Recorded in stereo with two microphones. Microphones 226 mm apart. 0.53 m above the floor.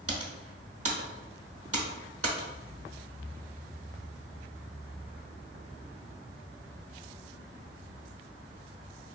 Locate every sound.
0.1 s typing on a keyboard: 70° right (ahead or behind), 0.8 m